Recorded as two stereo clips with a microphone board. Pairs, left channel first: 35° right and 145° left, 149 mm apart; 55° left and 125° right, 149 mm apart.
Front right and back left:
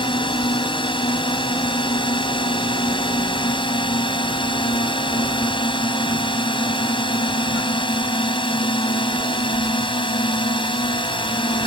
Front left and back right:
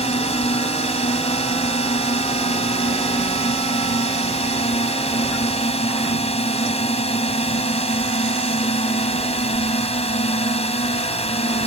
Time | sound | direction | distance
0.0 | a drone | 15° left | ?